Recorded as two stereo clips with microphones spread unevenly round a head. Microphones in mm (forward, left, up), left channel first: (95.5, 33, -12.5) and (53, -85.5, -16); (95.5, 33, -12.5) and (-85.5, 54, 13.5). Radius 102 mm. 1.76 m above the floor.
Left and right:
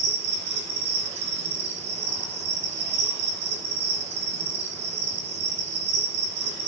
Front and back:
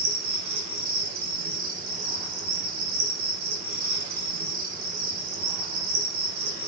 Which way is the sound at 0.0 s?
160° right.